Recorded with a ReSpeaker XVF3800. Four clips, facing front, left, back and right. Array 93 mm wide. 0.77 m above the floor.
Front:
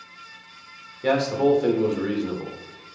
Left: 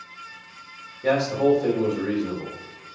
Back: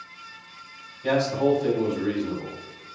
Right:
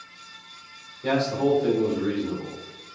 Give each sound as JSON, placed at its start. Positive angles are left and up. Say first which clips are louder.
{"t": 1.0, "sound": "a man speaking", "louder": "left 3 dB, front 2 dB", "azimuth_deg": 10, "distance_m": 2.5}